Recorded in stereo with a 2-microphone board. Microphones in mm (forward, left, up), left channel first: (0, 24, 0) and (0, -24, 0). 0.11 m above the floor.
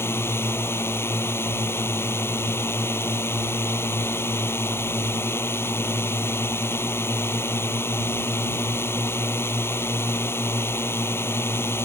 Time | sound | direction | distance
0.0 | a drone | 60° left (ahead or behind) | ?